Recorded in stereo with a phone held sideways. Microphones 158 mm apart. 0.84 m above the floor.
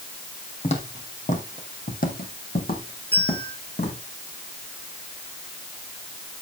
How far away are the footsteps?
About 2 m.